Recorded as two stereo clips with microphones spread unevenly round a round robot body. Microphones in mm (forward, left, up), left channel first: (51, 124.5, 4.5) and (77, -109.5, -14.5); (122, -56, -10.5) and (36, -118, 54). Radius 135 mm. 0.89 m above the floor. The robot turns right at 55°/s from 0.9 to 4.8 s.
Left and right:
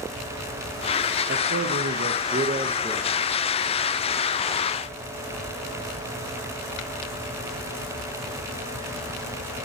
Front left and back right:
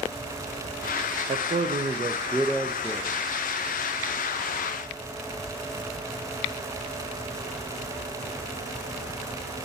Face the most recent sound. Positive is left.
turn(degrees=85)